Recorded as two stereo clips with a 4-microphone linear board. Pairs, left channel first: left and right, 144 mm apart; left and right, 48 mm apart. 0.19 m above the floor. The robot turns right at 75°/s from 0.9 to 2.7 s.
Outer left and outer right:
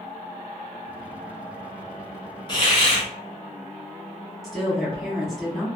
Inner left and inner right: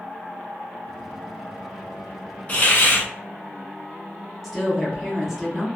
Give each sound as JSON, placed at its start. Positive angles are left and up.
{"t": 2.5, "sound": "a hiss", "side_deg": 35, "distance_m": 1.0}
{"t": 4.4, "sound": "a woman speaking", "side_deg": 0, "distance_m": 1.2}